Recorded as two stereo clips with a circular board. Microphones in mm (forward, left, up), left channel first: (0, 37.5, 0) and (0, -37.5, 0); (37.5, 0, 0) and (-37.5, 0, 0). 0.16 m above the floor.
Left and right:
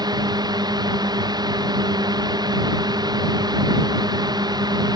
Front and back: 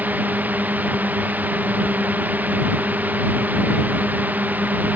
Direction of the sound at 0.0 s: 115° right.